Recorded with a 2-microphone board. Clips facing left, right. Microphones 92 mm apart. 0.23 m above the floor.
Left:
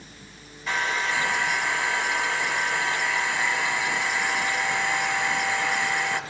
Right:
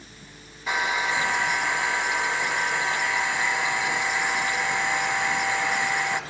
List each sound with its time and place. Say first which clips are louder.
0.7 s a hair dryer: right 1 dB; 10° right (ahead or behind), 2 m